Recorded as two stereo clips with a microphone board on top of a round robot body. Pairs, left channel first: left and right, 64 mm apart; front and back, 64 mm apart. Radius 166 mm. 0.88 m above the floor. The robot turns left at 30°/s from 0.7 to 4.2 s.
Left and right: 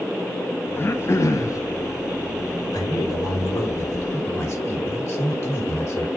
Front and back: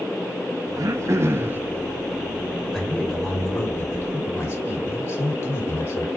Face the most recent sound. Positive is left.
turn(degrees=50)